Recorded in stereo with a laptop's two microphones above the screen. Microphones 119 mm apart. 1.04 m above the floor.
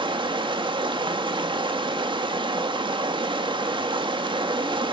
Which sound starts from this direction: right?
Running water, at 0.0 s.